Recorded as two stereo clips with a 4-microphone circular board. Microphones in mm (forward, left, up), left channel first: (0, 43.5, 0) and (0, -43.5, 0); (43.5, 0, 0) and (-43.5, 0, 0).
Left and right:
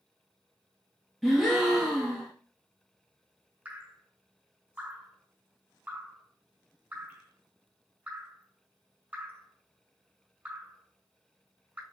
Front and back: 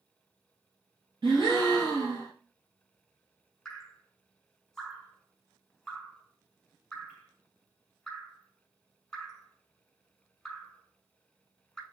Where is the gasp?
Straight behind, 1.4 m.